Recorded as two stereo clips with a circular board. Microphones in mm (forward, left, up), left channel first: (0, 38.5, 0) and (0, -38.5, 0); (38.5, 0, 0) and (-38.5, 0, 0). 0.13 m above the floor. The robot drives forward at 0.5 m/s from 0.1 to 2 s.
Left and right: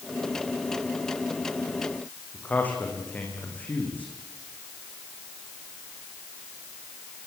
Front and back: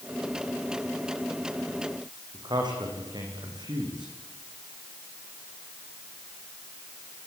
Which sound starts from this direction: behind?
A man speaking, at 2.3 s.